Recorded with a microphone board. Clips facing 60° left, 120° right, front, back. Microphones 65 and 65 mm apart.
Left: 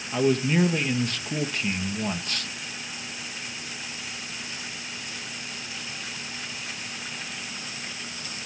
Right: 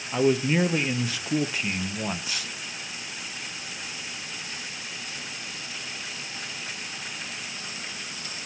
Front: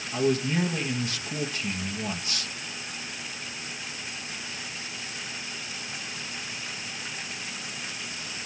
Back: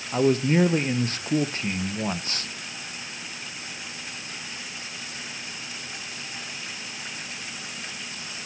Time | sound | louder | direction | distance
0.1 | a man speaking | even, back 5 dB | 160° left | 0.9 m